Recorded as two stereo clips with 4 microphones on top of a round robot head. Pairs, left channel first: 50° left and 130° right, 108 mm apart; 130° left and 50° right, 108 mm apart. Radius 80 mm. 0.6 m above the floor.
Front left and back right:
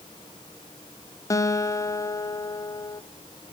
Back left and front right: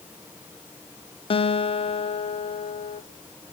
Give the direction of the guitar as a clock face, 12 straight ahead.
8 o'clock.